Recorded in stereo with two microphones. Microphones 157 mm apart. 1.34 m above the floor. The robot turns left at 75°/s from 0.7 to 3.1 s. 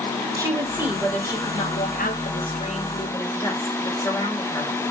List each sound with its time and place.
0.4 s a woman speaking: 160° right, 4.5 m; by 4.7 s 20° left, 4.5 m